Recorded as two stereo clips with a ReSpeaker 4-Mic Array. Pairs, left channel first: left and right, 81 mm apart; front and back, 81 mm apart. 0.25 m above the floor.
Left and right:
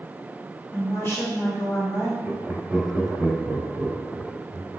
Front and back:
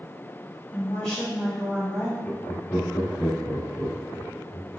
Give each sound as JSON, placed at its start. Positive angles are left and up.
{"t": 0.7, "sound": "a woman speaking", "azimuth_deg": 45, "distance_m": 1.4}
{"t": 2.2, "sound": "laughter", "azimuth_deg": -25, "distance_m": 1.0}